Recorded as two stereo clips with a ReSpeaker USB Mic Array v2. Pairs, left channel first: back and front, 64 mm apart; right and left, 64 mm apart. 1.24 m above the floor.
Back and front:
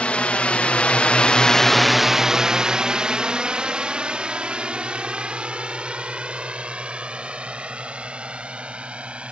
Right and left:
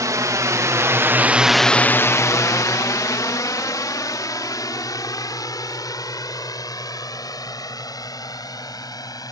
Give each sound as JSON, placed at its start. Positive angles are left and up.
{"t": 0.0, "sound": "a drone", "azimuth_deg": 110}